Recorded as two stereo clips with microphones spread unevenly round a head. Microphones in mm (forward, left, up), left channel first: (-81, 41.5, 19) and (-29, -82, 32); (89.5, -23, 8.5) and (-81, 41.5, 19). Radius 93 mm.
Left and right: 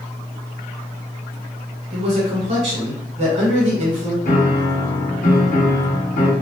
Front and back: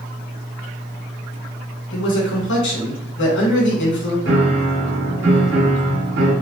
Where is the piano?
135° left, 1.6 m.